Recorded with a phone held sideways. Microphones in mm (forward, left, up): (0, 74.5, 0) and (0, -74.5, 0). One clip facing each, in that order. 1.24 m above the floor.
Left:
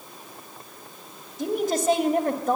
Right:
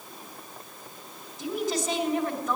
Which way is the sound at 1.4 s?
55° left (ahead or behind).